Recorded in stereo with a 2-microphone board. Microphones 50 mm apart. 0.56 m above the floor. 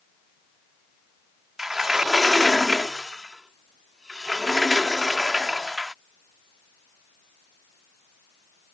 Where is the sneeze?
I don't hear a sneeze.